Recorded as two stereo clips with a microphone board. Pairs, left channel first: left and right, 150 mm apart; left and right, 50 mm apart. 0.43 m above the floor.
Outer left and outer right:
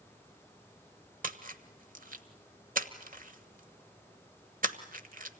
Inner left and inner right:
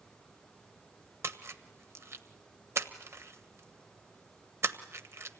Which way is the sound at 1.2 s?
65° right (ahead or behind).